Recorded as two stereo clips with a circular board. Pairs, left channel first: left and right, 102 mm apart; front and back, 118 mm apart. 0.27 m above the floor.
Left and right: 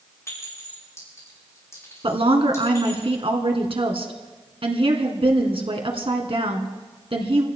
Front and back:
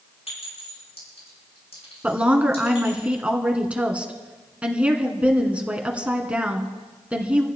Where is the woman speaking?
100° right, 2.5 m.